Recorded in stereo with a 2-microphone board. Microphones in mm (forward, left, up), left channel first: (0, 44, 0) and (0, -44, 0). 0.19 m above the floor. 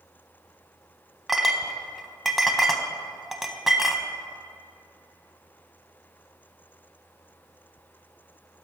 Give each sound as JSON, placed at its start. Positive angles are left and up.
{"t": 1.3, "sound": "a clink", "side_deg": -5, "distance_m": 0.6}